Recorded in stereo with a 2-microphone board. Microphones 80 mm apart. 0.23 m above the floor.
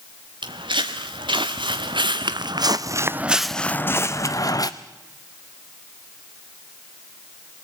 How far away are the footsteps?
About 2.0 m.